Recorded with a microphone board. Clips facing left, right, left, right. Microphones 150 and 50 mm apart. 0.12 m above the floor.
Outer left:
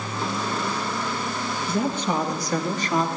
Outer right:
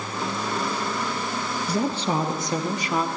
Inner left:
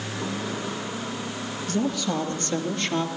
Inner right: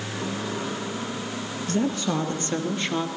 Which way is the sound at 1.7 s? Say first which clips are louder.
Even, inner right 1 dB; 40° right (ahead or behind).